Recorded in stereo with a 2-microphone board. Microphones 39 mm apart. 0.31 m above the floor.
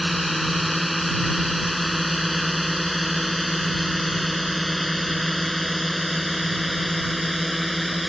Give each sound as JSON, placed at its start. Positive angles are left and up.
{"t": 0.0, "sound": "a drone", "side_deg": 0}